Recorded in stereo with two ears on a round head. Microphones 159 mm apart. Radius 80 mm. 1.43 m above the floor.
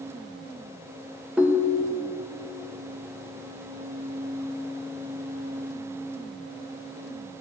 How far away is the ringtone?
About 0.9 m.